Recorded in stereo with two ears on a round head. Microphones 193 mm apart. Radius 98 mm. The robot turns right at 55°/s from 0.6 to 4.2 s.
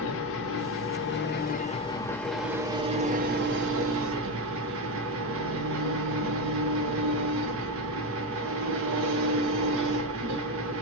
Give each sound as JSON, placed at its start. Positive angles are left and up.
{"t": 0.0, "sound": "an engine running", "azimuth_deg": 85, "distance_m": 0.7}